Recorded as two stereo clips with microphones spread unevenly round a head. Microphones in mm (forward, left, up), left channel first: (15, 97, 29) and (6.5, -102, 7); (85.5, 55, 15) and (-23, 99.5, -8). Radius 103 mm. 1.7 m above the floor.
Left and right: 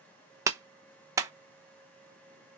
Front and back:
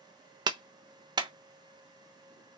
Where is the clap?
165° right, 0.9 m.